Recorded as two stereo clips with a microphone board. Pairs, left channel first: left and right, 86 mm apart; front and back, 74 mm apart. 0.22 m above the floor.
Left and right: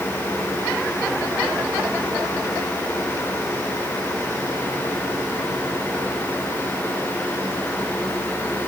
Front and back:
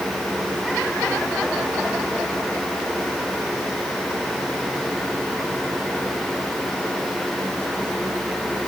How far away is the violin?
No violin in this recording.